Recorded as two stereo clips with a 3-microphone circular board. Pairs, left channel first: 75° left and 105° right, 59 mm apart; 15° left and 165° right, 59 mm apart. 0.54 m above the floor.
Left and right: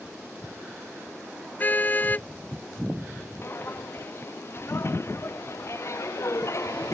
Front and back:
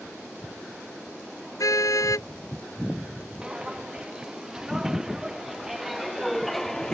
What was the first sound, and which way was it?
A car horn, 15° left.